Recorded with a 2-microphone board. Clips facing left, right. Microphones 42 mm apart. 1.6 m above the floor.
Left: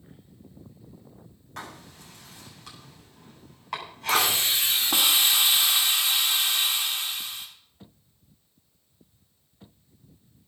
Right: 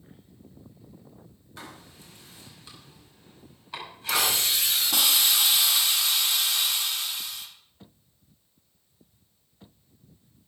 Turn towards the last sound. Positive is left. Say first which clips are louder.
# left 2 dB
turn(degrees=30)  # may be behind; listen again after turning